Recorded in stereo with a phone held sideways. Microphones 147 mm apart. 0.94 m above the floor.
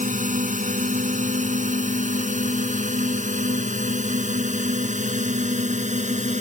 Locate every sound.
0.0 s a drone: 65° right (ahead or behind); by 6.4 s 55° right (ahead or behind)